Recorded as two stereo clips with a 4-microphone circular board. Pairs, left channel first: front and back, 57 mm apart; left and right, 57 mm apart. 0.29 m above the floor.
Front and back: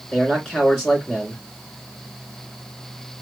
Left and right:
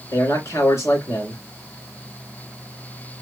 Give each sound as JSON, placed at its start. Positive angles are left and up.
{"t": 0.1, "sound": "a man speaking", "azimuth_deg": 80, "distance_m": 3.0}